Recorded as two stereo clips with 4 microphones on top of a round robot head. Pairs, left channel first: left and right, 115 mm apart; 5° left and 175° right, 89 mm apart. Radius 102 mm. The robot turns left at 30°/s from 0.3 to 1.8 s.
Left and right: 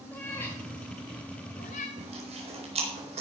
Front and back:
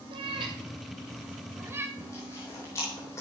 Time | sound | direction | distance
0.1 | a cat meowing | 170° left | 1.7 m
2.0 | chewing | 60° right | 4 m